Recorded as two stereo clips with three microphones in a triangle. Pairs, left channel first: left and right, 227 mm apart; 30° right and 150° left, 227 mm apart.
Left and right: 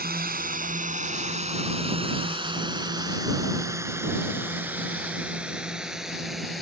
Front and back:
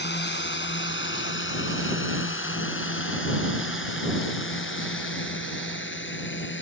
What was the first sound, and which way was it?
A drone, 55° right.